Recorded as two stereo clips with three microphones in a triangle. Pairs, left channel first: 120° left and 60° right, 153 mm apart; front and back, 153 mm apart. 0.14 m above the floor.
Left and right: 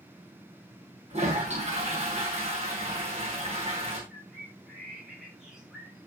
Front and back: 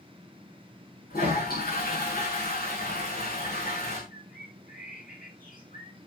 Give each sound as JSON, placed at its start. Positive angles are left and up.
{"t": 1.1, "sound": "a toilet flushing", "azimuth_deg": -15, "distance_m": 6.5}
{"t": 4.1, "sound": "a bird", "azimuth_deg": 25, "distance_m": 9.0}